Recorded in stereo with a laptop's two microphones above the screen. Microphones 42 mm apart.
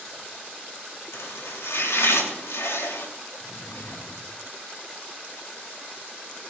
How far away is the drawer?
About 2.5 m.